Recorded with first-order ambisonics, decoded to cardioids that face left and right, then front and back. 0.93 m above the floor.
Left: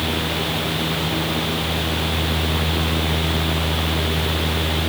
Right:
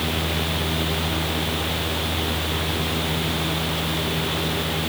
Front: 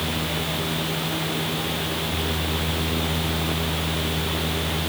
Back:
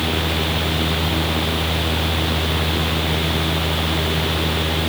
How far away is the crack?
No crack in this recording.